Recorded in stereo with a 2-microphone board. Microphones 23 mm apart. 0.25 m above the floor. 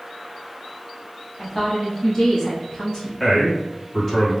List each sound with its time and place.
1.4 s a woman speaking: 10° left (ahead or behind), 1.1 m; by 3.1 s 35° left (ahead or behind), 1.9 m
3.2 s a man speaking: 20° left (ahead or behind), 1.7 m